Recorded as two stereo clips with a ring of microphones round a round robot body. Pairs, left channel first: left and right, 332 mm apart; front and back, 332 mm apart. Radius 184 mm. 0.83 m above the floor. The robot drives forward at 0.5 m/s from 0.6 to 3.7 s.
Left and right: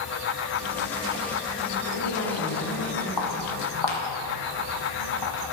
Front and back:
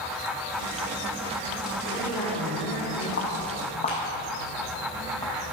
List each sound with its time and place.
1.9 s a woman speaking: 70° left, 4 m; by 3.1 s 80° left, 4 m
3.2 s footsteps: 55° left, 1.8 m; by 5.4 s 90° left, 3 m